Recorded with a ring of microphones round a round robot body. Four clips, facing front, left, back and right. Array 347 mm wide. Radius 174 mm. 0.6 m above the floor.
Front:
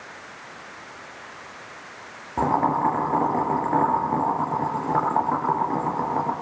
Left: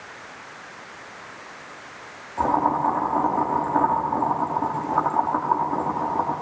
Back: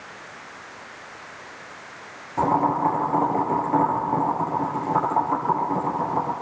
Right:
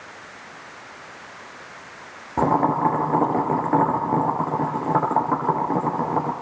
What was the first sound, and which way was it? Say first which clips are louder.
Boiling: right 2 dB, back 1 dB; 75° right.